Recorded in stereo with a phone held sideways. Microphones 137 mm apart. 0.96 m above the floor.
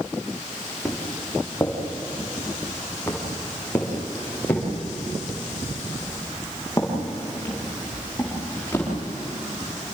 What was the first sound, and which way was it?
Footsteps, 10° left (ahead or behind).